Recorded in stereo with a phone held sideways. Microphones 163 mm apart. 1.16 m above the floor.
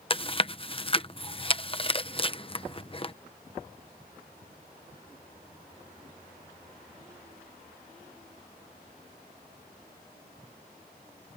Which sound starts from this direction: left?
Chewing, at 0.1 s.